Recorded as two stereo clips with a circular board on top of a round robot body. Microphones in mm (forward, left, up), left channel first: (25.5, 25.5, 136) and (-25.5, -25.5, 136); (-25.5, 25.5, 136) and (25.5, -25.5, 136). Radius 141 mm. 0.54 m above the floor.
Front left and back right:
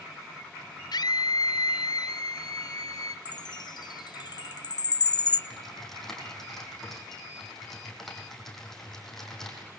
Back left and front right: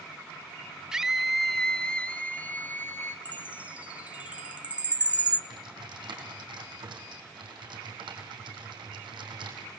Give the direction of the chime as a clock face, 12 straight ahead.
11 o'clock.